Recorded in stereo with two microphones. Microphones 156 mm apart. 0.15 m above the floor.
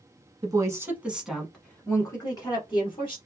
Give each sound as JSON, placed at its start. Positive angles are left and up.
{"t": 0.4, "sound": "a woman speaking", "side_deg": -25, "distance_m": 1.1}